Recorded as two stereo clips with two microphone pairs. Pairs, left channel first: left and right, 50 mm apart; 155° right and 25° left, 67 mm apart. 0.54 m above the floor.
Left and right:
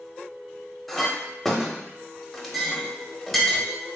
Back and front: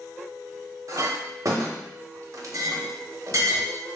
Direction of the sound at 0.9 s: 5° left.